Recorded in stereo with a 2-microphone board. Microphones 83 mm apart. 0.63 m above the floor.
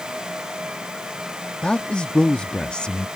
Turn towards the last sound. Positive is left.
turn(degrees=10)  # may be behind; listen again after turning